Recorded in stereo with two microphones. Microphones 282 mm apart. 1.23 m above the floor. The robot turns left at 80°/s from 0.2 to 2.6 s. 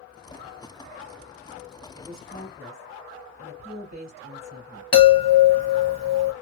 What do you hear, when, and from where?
1.9 s a woman speaking: 35° right, 1.3 m; by 4.8 s 85° right, 1.3 m
4.9 s a chime: 65° left (ahead or behind), 1.0 m